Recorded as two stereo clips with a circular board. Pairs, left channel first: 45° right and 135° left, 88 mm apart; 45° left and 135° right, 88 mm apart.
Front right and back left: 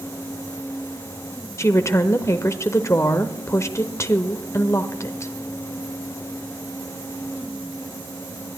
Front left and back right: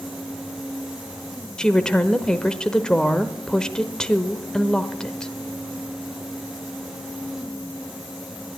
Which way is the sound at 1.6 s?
30° right.